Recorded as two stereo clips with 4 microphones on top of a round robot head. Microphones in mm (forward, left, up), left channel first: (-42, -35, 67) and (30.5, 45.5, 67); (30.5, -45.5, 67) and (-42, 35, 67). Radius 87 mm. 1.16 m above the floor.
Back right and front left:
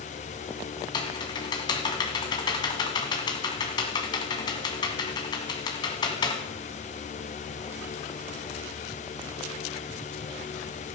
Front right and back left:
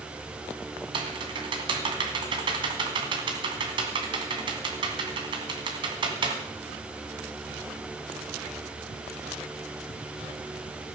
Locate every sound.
0.9 s typing on a keyboard: 175° left, 1.8 m